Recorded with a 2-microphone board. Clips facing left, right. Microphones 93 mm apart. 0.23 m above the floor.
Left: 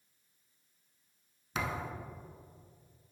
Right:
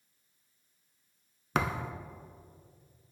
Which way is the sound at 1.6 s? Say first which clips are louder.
Right 5 dB; 60° right (ahead or behind).